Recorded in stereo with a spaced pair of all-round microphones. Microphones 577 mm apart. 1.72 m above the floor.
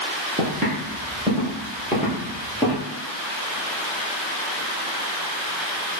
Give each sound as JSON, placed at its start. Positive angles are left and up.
{"t": 0.4, "sound": "footsteps", "side_deg": -15, "distance_m": 1.9}